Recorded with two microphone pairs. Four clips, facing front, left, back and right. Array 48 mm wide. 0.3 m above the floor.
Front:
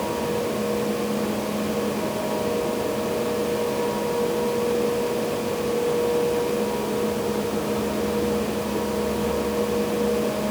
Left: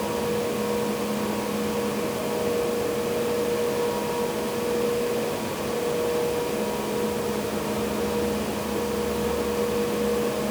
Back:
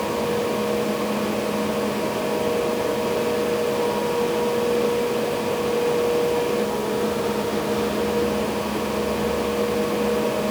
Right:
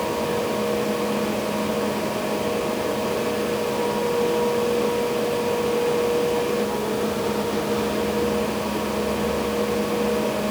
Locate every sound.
Only background noise.